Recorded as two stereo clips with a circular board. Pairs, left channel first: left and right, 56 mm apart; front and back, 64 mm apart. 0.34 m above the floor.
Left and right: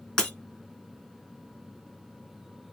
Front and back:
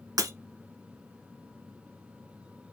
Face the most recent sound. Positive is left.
turn(degrees=165)